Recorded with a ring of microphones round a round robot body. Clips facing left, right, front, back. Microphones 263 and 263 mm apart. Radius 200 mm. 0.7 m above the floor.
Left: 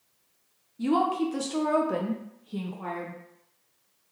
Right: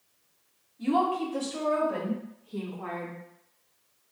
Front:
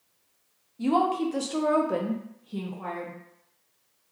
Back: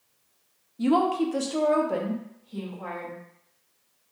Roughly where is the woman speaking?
Behind left.